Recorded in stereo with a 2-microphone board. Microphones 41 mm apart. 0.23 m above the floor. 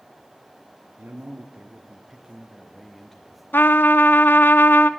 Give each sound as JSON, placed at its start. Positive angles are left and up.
{"t": 1.0, "sound": "a man speaking", "side_deg": -55, "distance_m": 3.0}
{"t": 3.5, "sound": "a trumpet", "side_deg": 65, "distance_m": 0.8}